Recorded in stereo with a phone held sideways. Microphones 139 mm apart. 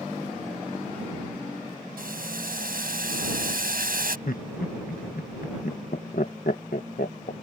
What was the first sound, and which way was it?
Boiling, 85° right.